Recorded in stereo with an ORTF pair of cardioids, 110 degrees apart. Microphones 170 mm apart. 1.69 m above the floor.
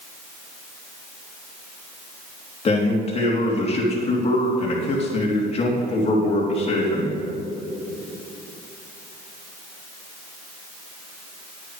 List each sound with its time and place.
2.6 s a man speaking: 40° left, 3 m